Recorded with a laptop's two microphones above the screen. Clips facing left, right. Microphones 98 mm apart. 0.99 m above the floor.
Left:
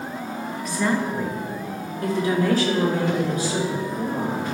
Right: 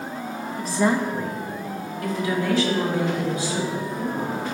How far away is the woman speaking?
About 1.0 m.